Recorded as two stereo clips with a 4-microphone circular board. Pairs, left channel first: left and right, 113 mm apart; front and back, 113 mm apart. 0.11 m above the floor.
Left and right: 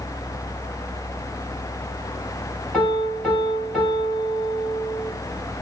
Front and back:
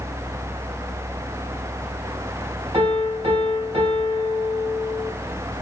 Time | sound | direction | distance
2.7 | a piano | 175° right | 2 m